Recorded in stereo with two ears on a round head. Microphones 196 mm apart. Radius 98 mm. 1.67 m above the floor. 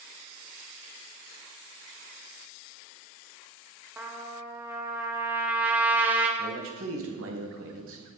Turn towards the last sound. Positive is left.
turn(degrees=-70)  # may be behind; listen again after turning